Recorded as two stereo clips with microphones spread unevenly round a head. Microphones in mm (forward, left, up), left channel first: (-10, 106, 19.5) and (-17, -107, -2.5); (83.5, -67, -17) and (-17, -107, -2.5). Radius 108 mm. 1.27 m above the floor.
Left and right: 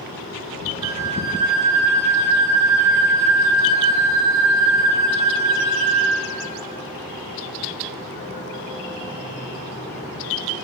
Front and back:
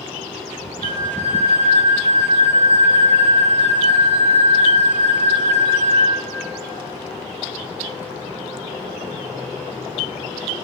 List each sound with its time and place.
0.8 s a flute: 165° right, 8 m